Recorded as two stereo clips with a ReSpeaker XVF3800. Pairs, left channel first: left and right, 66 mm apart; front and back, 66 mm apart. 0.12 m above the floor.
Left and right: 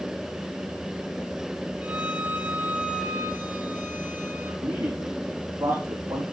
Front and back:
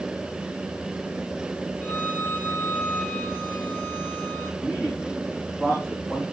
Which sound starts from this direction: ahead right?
A violin, at 1.8 s.